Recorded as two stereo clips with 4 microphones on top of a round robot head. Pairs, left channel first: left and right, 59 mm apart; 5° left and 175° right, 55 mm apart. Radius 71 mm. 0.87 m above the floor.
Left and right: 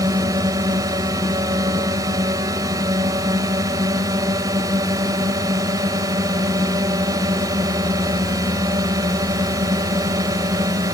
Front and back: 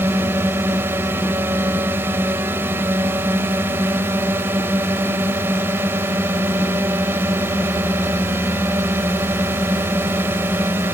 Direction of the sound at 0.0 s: 120° right.